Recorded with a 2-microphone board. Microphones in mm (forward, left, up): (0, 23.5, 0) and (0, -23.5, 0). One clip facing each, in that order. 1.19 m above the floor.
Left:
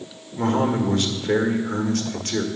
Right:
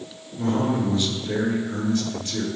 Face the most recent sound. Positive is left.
turn(degrees=65)  # may be behind; listen again after turning